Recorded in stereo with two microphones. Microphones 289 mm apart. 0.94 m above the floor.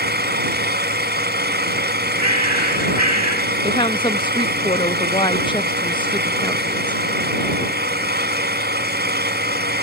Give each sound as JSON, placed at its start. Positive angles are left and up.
{"t": 0.0, "sound": "an engine running", "side_deg": -35}
{"t": 2.2, "sound": "a bird", "side_deg": -65}
{"t": 3.6, "sound": "a woman speaking", "side_deg": 15}